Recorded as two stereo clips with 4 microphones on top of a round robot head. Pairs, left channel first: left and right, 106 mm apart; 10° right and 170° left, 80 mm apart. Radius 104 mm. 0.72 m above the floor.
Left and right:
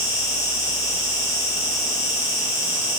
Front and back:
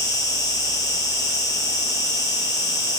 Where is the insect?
30° left, 4 m.